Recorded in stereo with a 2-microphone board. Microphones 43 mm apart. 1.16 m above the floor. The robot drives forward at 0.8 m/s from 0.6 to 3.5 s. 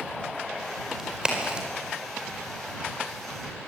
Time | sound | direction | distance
1.0 | a crack | 20° right (ahead or behind) | 4.5 m